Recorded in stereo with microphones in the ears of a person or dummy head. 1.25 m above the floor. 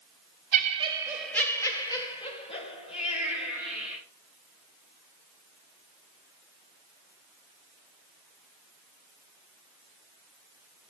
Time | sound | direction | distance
0.5 | laughter | 40° right (ahead or behind) | 0.7 m